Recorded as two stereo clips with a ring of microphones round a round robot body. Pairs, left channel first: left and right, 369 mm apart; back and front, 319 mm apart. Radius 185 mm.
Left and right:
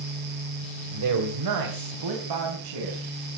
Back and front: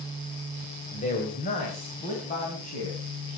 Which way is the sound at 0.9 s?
115° right.